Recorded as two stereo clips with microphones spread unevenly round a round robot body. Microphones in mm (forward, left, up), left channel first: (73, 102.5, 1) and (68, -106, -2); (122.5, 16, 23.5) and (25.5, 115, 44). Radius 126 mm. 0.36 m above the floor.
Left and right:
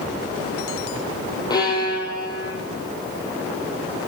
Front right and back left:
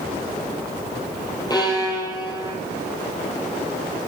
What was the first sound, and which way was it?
A violin, 15° left.